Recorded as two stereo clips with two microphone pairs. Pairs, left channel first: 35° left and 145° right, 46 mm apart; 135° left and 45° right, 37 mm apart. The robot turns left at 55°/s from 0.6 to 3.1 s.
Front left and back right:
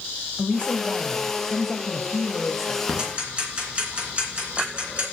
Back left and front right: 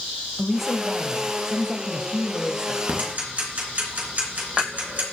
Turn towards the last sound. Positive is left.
turn(degrees=-85)